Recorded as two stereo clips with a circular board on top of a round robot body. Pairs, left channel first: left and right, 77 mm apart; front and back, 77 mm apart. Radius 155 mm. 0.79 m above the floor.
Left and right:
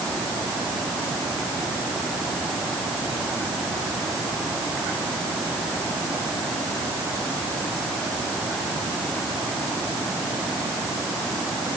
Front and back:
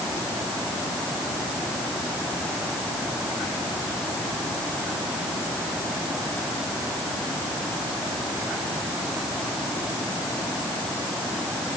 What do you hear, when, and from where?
Only background noise.